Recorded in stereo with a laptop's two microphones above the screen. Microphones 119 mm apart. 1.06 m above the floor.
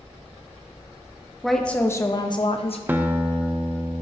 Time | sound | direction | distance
1.4 | a woman speaking | centre (ahead or behind) | 0.7 m
2.9 | a guitar | 15° right (ahead or behind) | 0.6 m